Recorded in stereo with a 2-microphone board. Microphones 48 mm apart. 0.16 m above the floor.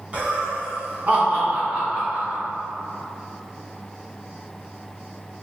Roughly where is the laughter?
Right.